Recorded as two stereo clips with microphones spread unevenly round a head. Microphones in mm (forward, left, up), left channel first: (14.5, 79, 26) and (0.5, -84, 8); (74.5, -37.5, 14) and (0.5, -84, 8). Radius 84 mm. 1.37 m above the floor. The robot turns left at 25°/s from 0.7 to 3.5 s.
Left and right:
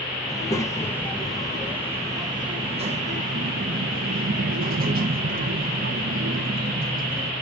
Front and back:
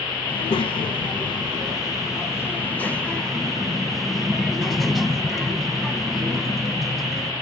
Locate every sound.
0.3 s a child speaking: 15° left, 1.0 m; by 7.3 s 55° right, 1.0 m